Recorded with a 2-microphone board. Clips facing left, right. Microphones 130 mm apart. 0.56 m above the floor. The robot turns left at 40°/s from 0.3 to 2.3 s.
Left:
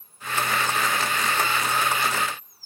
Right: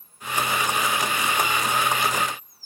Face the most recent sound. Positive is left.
No sound to turn to.